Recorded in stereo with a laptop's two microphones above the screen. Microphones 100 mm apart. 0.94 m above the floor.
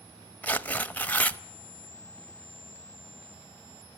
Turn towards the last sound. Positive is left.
turn(degrees=15)  # may be behind; listen again after turning